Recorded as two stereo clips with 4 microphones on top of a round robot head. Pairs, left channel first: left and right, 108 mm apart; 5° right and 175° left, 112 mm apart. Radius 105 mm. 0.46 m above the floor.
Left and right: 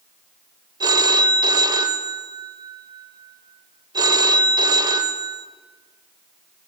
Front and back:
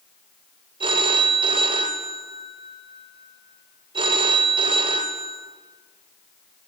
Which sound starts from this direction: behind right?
A phone ringing, at 0.8 s.